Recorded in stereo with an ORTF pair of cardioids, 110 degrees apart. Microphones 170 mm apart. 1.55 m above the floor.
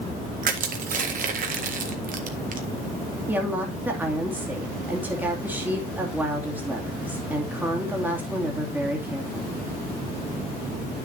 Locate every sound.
0.4 s crushing: 50° right, 1.8 m
3.3 s a woman speaking: 10° right, 2.5 m